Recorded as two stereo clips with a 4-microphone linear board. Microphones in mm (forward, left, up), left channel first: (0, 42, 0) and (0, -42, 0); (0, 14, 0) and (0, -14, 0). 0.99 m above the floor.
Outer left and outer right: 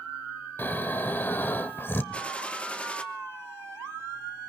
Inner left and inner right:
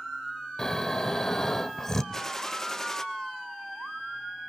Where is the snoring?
20° left (ahead or behind), 0.9 m.